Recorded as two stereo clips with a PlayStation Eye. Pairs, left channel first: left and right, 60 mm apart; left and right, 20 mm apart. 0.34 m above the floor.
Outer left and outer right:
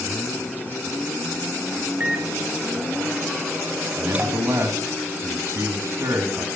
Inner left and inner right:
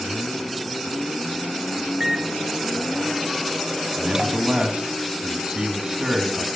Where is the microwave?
25° right (ahead or behind), 1.0 m.